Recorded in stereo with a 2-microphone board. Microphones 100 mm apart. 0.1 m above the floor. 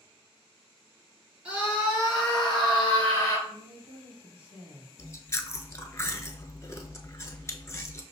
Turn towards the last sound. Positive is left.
turn(degrees=30)  # may be behind; listen again after turning